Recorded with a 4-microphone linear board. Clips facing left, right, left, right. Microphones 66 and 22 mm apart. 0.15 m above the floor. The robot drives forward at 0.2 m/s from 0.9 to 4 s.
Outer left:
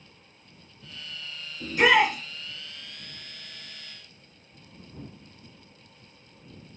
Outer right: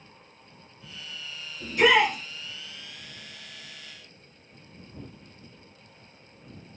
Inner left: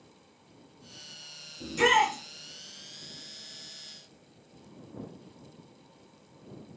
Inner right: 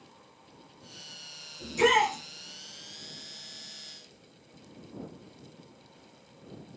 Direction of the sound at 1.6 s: 25° left (ahead or behind).